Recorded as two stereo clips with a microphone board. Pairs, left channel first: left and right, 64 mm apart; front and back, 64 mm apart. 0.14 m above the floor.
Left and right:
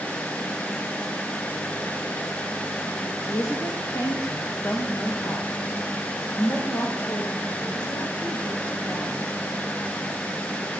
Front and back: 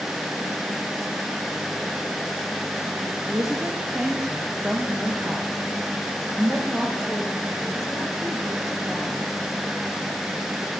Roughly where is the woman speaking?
Left.